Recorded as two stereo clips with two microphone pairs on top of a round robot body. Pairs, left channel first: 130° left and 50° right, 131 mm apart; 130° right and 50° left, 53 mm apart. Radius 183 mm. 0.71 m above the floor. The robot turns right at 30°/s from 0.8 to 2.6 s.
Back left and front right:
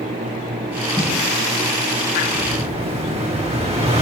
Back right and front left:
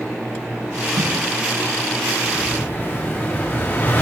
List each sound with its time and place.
1.0 s a snare drum: 55° left, 1.2 m; by 1.2 s 65° left, 1.2 m
2.3 s an explosion: 95° right, 5.5 m; by 4.0 s 85° right, 5.5 m